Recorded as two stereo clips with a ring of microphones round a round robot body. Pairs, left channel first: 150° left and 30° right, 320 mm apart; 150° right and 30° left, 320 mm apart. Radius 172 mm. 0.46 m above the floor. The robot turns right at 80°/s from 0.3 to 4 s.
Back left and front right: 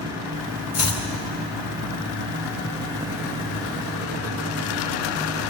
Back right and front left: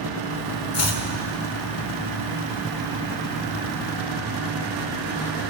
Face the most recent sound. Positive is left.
turn(degrees=75)